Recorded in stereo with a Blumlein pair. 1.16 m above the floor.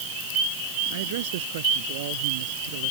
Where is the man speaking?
55° right.